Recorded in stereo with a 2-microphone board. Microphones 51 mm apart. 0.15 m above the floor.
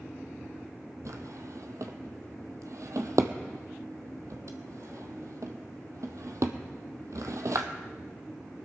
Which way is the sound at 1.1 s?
75° right (ahead or behind).